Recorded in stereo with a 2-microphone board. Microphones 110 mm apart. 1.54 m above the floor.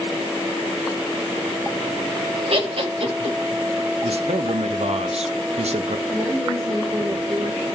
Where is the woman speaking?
45° right (ahead or behind), 3.5 m.